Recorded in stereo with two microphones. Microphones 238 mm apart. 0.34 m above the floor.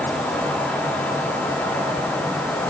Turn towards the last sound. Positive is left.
No sound to turn to.